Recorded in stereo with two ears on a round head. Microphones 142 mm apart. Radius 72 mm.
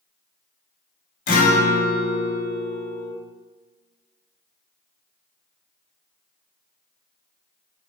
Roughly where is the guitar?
Left.